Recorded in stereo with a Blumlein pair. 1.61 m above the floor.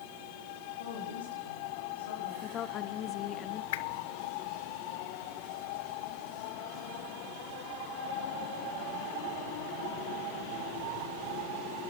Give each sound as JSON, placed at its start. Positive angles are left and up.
{"t": 0.8, "sound": "a woman speaking", "azimuth_deg": 60, "distance_m": 9.0}
{"t": 2.4, "sound": "a woman speaking", "azimuth_deg": 30, "distance_m": 1.7}
{"t": 3.7, "sound": "a whoosh", "azimuth_deg": 55, "distance_m": 1.2}